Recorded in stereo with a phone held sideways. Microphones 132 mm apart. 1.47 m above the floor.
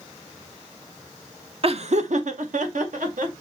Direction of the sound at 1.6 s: 45° right (ahead or behind).